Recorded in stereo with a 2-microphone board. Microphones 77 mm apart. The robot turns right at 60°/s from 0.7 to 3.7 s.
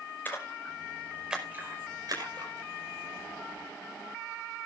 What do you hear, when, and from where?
0.2 s a splash: 25° left (ahead or behind), 5.5 m; by 2.5 s 80° right, 5.5 m